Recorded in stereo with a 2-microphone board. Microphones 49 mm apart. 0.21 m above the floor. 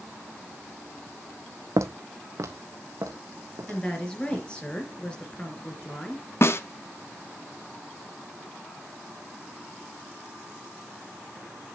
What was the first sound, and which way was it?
Footsteps, 70° right (ahead or behind).